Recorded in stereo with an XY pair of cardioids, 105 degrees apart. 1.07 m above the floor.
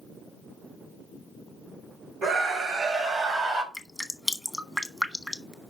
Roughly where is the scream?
Ahead right.